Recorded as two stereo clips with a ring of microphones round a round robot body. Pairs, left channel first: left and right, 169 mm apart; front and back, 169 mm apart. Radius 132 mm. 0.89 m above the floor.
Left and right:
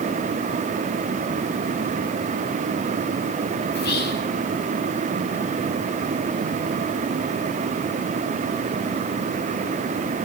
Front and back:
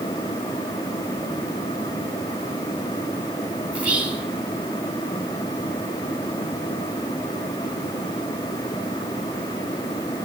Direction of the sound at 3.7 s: 100° left.